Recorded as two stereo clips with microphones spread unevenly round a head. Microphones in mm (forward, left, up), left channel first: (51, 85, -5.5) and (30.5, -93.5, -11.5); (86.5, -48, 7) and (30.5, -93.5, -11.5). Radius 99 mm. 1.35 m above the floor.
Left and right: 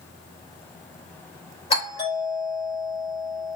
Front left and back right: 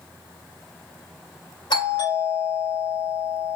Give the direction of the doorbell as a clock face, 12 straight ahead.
11 o'clock.